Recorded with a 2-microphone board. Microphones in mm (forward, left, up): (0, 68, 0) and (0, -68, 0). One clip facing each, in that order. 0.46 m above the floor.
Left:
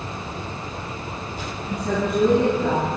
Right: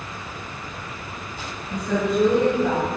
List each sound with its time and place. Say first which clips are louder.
1.7 s a woman speaking: right 1 dB; 75° left (ahead or behind), 3.5 m